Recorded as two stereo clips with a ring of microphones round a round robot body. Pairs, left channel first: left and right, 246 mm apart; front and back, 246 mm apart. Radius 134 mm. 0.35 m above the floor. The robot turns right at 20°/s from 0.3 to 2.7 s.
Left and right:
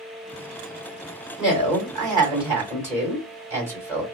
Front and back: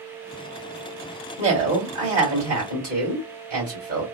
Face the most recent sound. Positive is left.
turn(degrees=160)